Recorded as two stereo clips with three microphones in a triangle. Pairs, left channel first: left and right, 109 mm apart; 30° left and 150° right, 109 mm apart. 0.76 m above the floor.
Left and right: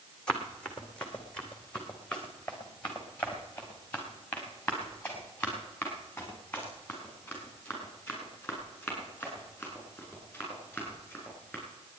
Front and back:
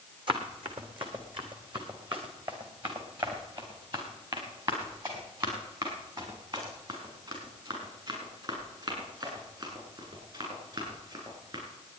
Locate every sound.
0.3 s running footsteps: 170° left, 2.5 m; by 11.6 s 165° left, 9.5 m